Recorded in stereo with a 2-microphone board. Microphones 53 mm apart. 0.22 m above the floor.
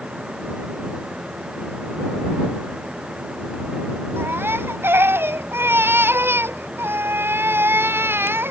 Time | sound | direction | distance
4.2 | a baby crying | 45° right (ahead or behind) | ?